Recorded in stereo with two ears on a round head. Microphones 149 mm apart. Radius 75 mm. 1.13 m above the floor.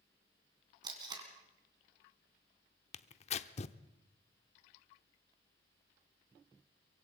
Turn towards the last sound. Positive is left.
turn(degrees=40)  # may be behind; listen again after turning